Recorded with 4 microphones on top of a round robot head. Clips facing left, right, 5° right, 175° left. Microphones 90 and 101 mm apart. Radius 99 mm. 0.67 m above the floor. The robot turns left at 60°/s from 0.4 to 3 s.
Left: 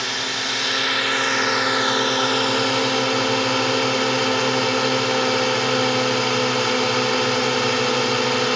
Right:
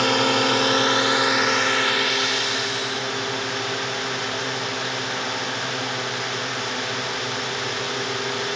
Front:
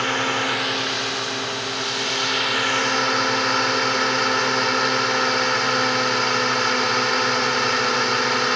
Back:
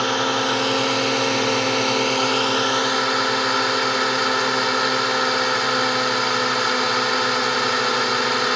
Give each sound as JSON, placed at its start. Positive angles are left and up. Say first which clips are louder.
{"t": 0.0, "sound": "a drone", "louder": "right 8 dB, back 2 dB", "azimuth_deg": -115}